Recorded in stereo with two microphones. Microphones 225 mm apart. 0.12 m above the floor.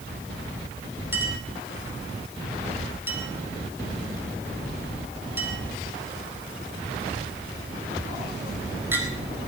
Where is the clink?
10° right (ahead or behind), 2.5 m.